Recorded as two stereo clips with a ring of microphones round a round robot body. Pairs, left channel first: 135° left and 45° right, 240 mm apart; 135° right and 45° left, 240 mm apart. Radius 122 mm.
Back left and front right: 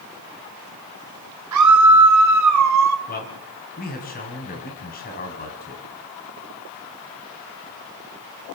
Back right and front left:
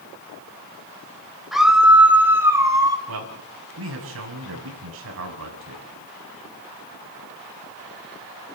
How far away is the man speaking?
About 6 m.